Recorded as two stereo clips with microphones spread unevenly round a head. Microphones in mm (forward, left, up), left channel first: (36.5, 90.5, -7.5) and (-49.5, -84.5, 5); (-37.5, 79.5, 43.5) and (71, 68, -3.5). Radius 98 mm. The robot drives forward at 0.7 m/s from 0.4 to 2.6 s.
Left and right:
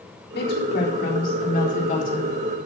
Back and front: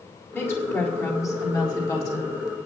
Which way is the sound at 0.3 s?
100° left.